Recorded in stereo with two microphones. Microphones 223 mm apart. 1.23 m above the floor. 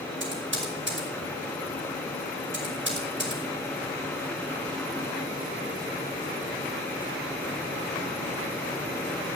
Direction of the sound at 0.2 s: 60° right (ahead or behind).